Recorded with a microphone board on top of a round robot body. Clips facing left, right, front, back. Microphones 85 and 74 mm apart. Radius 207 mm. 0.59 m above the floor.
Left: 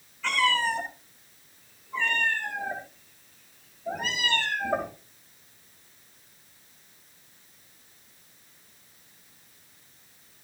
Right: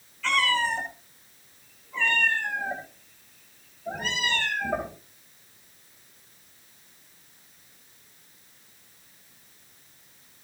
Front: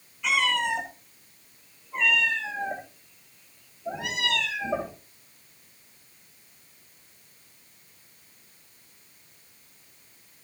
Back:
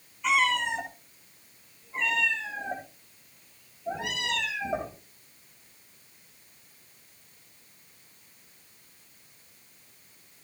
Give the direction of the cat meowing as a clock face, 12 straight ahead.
11 o'clock.